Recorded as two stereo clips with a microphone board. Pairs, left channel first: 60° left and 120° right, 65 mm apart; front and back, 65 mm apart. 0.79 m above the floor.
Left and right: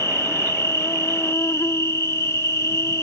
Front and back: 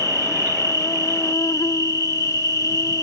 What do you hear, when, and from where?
0.0 s an insect: 20° left